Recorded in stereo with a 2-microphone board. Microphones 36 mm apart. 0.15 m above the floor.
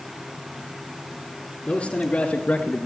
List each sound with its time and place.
1.7 s a man speaking: 30° left (ahead or behind), 2.5 m; by 2.9 s 40° left (ahead or behind), 2 m